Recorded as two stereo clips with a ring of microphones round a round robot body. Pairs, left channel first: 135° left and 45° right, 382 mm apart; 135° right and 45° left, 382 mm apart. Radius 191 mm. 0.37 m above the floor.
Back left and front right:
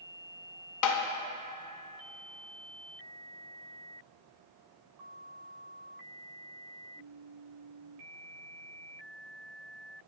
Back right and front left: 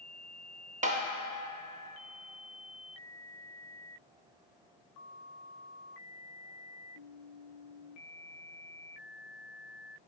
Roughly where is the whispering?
No whispering in this recording.